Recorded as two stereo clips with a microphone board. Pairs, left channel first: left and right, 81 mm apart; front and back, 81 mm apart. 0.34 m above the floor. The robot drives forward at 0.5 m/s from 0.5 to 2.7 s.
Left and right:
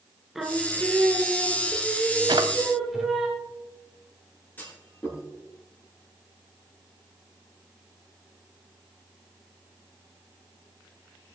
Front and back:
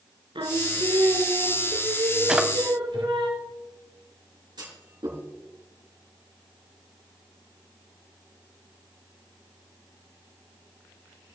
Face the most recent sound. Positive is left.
turn(degrees=155)